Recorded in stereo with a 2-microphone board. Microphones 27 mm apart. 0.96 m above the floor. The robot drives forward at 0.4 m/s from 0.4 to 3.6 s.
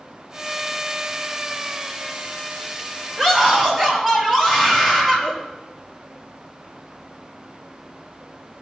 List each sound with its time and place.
3.2 s a scream: 15° left (ahead or behind), 5 m